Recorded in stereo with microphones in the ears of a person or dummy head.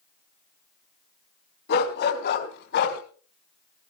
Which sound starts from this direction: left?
A dog barking, at 1.7 s.